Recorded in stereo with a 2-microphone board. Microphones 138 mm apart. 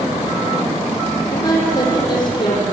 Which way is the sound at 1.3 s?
30° left (ahead or behind).